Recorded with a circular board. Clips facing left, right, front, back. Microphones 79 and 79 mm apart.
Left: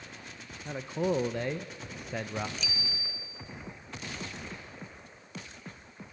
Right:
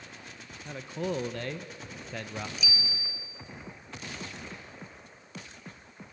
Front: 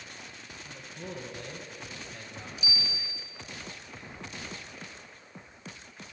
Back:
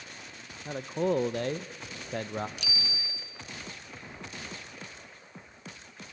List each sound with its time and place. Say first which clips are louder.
0.7 s a man speaking: left 3 dB, back 15 dB; 160° left, 0.6 m
2.6 s a bicycle bell: right 2 dB, front 1 dB; 175° right, 2 m